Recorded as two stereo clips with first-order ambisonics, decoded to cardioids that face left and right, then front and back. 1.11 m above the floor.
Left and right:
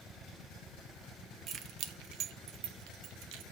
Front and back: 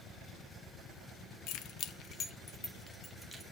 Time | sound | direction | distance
1.5 | keys jangling | 30° right | 0.7 m